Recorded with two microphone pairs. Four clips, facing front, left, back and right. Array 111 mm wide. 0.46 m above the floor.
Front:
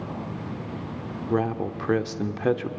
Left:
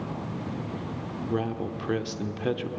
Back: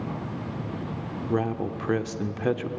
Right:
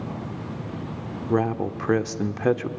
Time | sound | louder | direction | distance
1.3 | a man speaking | right 7 dB, front 2 dB | 65° right | 0.8 m